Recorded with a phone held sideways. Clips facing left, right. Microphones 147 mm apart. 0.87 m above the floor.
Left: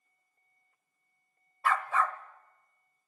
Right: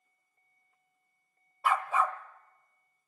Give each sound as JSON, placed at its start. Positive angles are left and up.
{"t": 1.6, "sound": "a dog barking", "side_deg": -15, "distance_m": 1.2}